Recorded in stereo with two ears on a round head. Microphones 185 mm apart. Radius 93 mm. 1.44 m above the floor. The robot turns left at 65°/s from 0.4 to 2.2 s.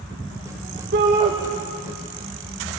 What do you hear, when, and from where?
0.9 s a shout: 50° right (ahead or behind), 2 m; by 1.3 s 25° right (ahead or behind), 2 m